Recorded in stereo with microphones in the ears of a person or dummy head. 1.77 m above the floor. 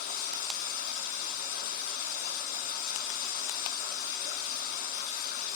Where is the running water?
45° left (ahead or behind), 1.7 m.